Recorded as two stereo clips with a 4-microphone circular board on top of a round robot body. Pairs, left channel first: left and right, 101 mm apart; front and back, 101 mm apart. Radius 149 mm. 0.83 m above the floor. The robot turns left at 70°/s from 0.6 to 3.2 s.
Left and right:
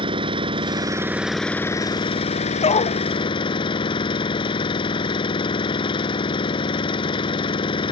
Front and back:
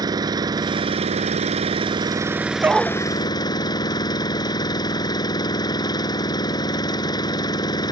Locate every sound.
0.0 s an engine running: 130° right; by 7.9 s 50° left
2.6 s a dog barking: 110° left; by 3.0 s 85° left